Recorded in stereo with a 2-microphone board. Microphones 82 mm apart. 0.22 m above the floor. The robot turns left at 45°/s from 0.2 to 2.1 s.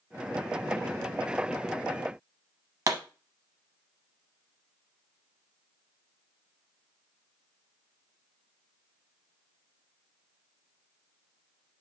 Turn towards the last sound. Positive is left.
turn(degrees=-45)  # may be behind; listen again after turning